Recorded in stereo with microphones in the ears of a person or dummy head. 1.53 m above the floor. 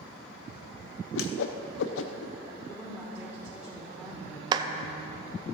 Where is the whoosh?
75° left (ahead or behind), 0.6 m.